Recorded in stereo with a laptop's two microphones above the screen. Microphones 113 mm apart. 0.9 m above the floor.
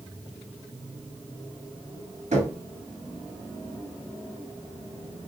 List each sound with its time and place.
2.3 s knocking: 85° right, 1.7 m